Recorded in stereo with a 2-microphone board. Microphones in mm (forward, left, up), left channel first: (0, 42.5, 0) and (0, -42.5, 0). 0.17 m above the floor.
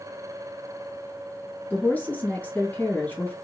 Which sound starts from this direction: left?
A woman speaking, at 1.7 s.